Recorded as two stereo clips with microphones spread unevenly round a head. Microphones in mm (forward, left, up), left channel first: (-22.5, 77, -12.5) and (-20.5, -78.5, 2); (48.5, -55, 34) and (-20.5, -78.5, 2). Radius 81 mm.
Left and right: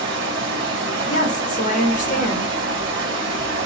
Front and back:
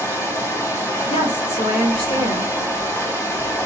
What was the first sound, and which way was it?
Running water, 25° right.